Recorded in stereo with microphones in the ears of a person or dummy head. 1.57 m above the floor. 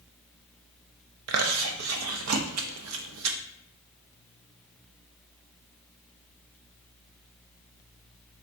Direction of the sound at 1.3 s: 85° right.